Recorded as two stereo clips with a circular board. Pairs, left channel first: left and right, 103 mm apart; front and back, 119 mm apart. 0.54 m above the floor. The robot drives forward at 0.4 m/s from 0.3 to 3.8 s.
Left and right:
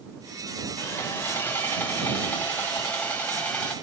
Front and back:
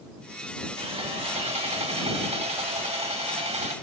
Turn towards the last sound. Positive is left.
turn(degrees=165)